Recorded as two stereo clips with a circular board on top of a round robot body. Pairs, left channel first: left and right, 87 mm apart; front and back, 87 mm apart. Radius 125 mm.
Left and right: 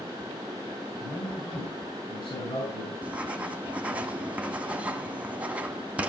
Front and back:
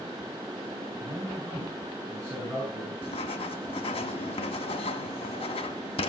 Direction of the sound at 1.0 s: 115° left.